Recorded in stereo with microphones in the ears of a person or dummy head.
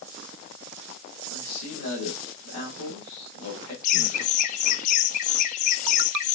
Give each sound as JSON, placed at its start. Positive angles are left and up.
{"t": 1.3, "sound": "a man speaking", "side_deg": 80, "distance_m": 1.8}
{"t": 3.8, "sound": "laughter", "side_deg": 45, "distance_m": 0.6}